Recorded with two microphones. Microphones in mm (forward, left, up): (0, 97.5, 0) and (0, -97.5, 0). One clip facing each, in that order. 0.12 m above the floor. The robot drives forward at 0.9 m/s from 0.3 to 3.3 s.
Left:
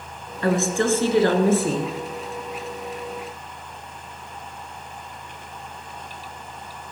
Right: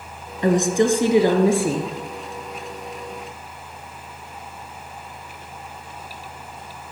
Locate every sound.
0.4 s a woman speaking: 20° right (ahead or behind), 1.2 m; by 1.9 s 10° right (ahead or behind), 1.9 m